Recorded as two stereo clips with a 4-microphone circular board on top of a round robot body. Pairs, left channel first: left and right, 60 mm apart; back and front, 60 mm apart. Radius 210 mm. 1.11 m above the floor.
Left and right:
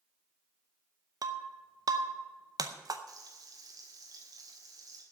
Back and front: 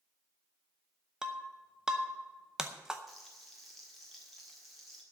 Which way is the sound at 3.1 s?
90° right.